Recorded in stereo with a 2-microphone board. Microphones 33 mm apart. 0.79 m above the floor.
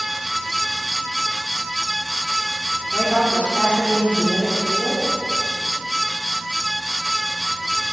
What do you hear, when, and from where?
2.9 s a woman speaking: 55° left (ahead or behind), 1.8 m